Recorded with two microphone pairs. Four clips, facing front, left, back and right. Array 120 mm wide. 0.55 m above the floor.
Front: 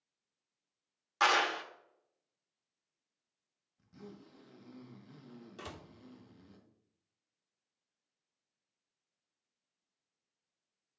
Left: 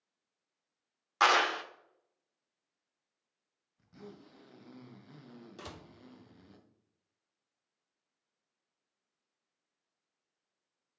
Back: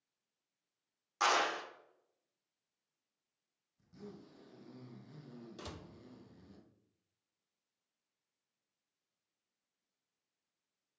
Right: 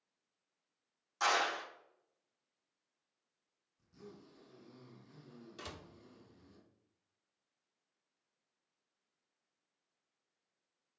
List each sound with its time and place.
1.2 s a clap: 70° left, 0.8 m
3.8 s a zipper: 85° left, 1.3 m
5.6 s a door slam: 20° right, 0.6 m